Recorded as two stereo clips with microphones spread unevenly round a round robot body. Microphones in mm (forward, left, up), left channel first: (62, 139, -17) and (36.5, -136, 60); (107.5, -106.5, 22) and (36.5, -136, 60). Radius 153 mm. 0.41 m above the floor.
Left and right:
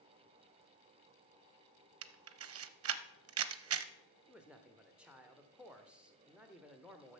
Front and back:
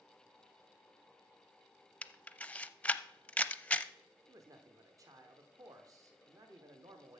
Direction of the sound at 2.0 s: 55° right.